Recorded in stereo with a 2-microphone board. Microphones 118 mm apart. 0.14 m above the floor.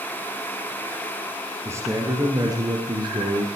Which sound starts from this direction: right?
A man speaking, at 1.6 s.